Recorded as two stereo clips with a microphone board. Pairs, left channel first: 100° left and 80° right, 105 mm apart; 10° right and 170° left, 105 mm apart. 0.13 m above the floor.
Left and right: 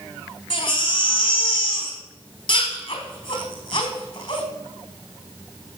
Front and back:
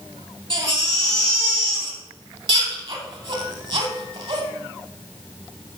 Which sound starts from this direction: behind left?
A baby crying, at 0.5 s.